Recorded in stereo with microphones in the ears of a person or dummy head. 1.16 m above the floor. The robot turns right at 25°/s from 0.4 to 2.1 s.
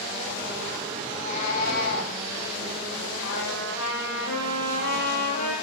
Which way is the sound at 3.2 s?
75° left (ahead or behind).